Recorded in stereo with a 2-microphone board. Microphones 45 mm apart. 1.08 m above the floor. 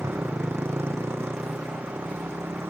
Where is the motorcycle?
75° right (ahead or behind).